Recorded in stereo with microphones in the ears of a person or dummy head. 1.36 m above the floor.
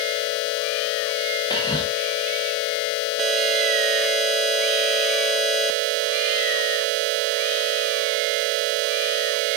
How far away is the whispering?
About 1.5 m.